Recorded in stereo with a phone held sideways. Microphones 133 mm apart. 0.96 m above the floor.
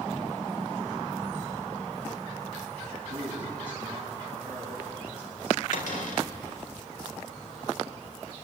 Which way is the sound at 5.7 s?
75° left (ahead or behind).